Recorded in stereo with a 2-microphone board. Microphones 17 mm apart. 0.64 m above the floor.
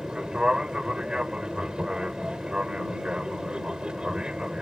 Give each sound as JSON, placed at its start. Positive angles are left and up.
{"t": 0.0, "sound": "an aircraft", "side_deg": -60}